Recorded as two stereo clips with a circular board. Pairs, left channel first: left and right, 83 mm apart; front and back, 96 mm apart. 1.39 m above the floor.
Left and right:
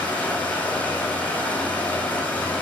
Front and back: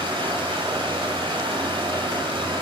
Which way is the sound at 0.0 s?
160° left.